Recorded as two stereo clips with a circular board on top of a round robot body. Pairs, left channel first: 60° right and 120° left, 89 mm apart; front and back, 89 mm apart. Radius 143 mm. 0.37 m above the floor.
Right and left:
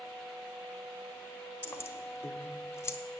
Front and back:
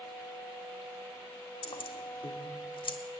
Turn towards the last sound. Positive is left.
turn(degrees=-5)